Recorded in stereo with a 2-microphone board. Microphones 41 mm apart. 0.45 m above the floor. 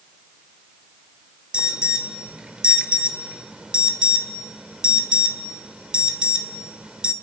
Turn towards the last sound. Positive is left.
turn(degrees=-25)  # may be behind; listen again after turning